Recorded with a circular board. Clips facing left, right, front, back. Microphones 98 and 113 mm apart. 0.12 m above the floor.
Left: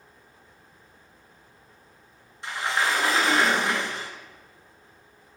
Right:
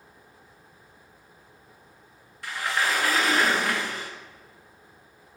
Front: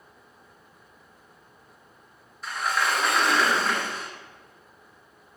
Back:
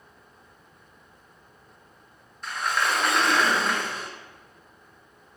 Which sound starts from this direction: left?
A sliding door, at 2.4 s.